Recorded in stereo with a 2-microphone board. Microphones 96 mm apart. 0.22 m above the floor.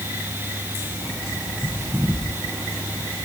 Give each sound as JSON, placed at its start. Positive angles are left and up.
{"t": 1.0, "sound": "a bird", "side_deg": -5, "distance_m": 9.0}